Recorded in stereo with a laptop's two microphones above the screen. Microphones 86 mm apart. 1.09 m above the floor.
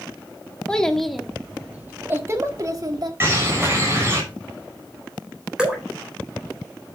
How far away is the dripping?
About 4 m.